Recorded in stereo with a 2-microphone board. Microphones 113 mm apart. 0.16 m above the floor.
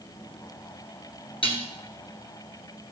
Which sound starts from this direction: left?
Dishes clattering, at 1.4 s.